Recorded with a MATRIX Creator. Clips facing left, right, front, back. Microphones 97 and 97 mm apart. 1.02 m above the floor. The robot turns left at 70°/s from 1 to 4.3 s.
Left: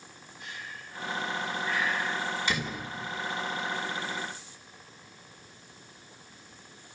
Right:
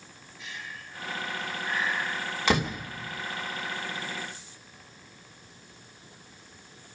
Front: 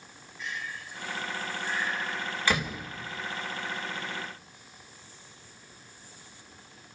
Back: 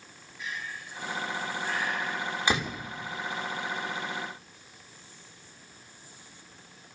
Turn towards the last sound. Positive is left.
turn(degrees=125)